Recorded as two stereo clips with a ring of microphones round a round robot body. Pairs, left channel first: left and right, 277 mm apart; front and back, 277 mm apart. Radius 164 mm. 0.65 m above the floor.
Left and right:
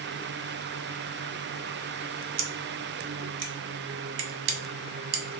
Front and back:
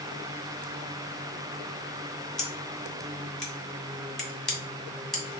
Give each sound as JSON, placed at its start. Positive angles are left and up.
{"t": 2.4, "sound": "scissors", "azimuth_deg": -85, "distance_m": 0.9}